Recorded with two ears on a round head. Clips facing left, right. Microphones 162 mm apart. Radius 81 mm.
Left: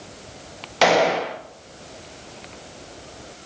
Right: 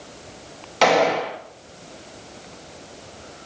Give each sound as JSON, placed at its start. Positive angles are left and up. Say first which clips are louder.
{"t": 0.8, "sound": "a gunshot", "louder": "even", "side_deg": 0, "distance_m": 0.7}